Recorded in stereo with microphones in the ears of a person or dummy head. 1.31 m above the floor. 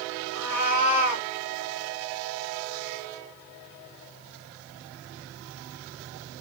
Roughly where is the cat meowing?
Centre.